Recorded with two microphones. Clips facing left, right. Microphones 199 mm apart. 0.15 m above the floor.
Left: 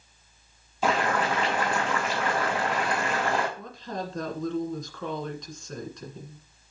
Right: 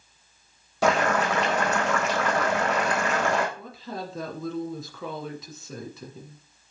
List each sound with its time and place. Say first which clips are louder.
0.8 s boiling: right 3 dB; 80° right, 3.5 m
3.6 s a woman speaking: left 1 dB; 5° right (ahead or behind), 1.9 m